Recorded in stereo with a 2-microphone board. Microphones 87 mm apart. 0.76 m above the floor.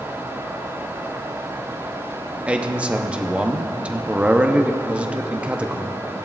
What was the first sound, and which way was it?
A man speaking, 15° right (ahead or behind).